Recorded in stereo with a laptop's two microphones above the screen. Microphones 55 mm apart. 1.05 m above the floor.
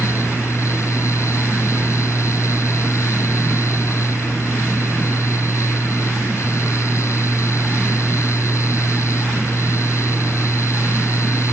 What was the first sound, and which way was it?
A fan, 60° left (ahead or behind).